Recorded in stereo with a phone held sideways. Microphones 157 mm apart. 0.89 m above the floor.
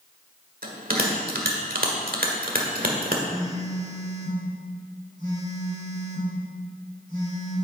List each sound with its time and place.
0.6 s a bell: 75° right (ahead or behind), 1.5 m
3.3 s a phone buzzing: 65° right (ahead or behind), 4 m